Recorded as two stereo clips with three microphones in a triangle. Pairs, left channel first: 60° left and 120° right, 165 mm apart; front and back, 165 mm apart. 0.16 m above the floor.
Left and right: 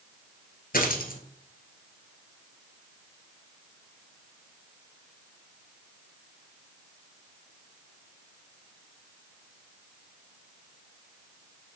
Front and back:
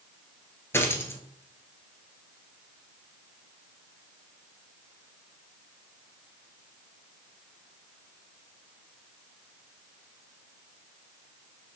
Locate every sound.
0.7 s a dropped coin: 75° left, 1.5 m